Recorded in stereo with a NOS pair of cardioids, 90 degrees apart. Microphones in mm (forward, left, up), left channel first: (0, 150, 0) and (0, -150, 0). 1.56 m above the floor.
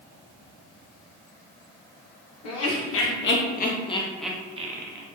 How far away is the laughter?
About 1.2 m.